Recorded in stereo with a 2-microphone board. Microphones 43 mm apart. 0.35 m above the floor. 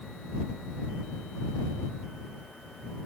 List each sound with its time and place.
Only background noise.